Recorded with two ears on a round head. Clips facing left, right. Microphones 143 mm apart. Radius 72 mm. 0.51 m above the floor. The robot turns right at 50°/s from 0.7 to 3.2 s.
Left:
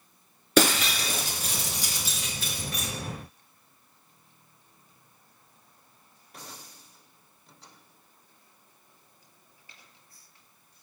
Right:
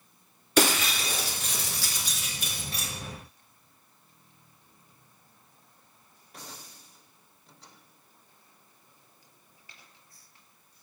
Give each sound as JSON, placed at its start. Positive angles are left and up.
{"t": 0.6, "sound": "breaking glass", "side_deg": 70, "distance_m": 1.8}